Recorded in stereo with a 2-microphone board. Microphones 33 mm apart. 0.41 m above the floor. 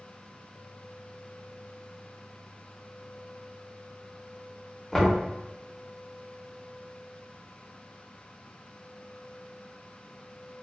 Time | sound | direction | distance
4.9 | knocking | 10° left (ahead or behind) | 0.8 m